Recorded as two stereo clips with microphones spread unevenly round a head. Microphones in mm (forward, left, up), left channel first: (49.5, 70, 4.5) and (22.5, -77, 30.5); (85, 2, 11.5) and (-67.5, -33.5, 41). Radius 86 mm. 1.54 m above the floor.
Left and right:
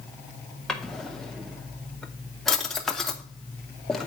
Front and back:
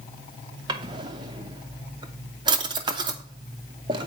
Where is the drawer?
Straight behind, 0.8 m.